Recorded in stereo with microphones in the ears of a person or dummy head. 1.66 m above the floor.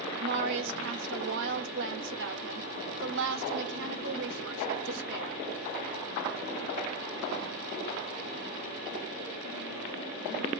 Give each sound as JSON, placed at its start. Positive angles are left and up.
{"t": 0.2, "sound": "a woman speaking", "side_deg": -70, "distance_m": 0.8}